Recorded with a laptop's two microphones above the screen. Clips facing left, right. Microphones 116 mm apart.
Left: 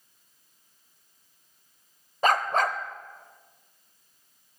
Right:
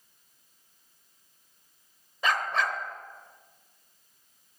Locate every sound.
2.2 s a dog barking: 45° left (ahead or behind), 0.8 m